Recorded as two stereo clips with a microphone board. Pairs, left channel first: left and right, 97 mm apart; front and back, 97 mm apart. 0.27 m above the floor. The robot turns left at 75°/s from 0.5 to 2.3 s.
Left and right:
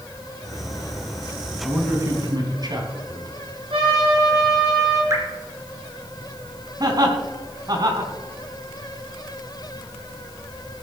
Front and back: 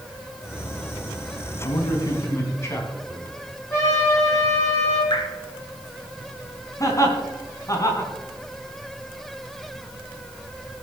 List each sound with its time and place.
1.6 s a man speaking: 5° right, 2.5 m; by 3.4 s 55° right, 2.5 m
3.7 s a trumpet: 65° right, 7.5 m
5.1 s dripping: 35° right, 3.5 m
6.8 s laughter: 50° right, 3 m